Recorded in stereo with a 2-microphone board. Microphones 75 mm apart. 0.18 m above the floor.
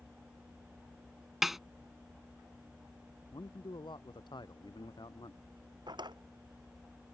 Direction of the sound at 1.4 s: 5° right (ahead or behind).